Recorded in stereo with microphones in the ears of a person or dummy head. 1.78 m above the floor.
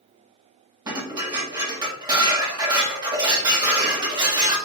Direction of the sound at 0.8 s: 25° right (ahead or behind).